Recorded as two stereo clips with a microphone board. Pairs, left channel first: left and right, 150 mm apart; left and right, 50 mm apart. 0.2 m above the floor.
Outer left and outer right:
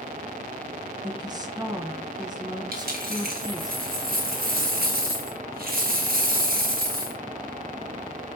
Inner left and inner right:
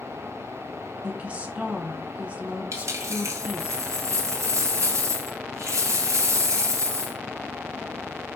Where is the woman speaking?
25° right (ahead or behind), 1.9 m.